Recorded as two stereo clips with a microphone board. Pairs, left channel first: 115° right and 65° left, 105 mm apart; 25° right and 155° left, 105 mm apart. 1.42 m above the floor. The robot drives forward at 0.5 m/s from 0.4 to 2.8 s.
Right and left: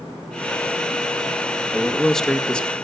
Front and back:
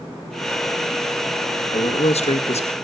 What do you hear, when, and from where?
1.7 s a man speaking: 25° right, 2 m; by 2.7 s 35° right, 1.6 m